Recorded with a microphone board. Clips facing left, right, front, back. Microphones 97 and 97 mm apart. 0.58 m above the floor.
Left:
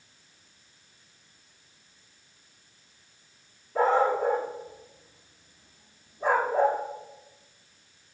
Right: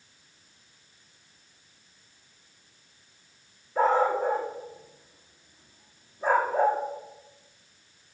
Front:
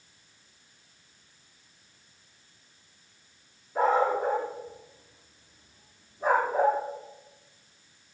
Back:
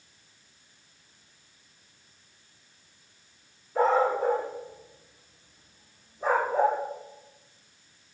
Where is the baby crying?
I don't hear a baby crying.